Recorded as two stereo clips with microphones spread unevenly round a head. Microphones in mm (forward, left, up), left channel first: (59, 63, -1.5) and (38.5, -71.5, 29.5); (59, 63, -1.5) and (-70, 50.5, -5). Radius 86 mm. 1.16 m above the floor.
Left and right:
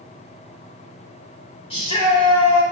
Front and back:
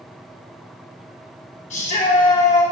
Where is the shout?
35° left, 3 m.